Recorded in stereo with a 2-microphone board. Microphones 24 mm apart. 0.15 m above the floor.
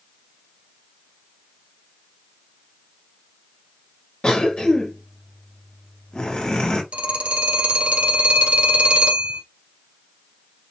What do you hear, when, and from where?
4.2 s a cough: 45° left (ahead or behind), 2 m
6.9 s a phone ringing: 65° right (ahead or behind), 2 m